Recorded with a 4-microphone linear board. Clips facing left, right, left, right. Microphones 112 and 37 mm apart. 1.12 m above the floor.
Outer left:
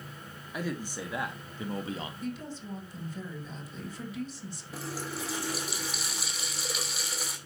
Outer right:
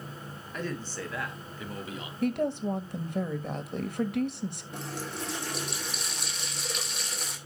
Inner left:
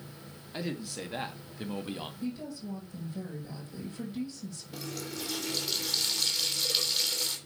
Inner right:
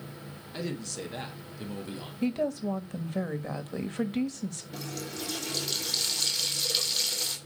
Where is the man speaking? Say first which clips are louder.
Even, inner right 1 dB; 10° left (ahead or behind), 2.5 m; by 2.1 s 35° left (ahead or behind), 1.7 m.